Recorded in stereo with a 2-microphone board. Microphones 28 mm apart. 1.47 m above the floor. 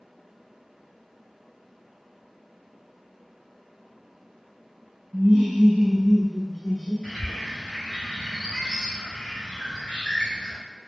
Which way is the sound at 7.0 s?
35° left (ahead or behind).